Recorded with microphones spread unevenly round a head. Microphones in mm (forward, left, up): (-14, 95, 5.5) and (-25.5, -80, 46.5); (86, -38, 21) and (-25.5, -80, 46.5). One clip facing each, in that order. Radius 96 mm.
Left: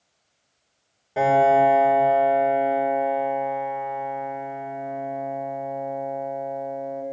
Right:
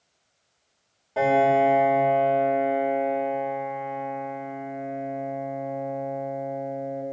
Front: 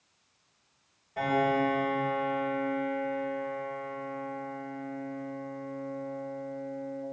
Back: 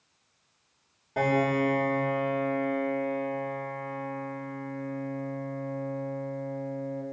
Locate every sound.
1.2 s a piano: 165° left, 2.5 m